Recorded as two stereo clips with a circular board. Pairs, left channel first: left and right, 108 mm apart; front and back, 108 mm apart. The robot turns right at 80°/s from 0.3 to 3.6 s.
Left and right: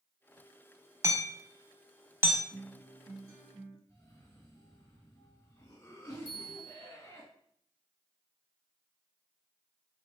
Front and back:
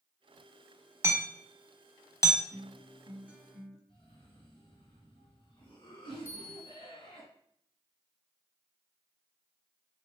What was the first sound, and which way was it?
Hammering, 135° right.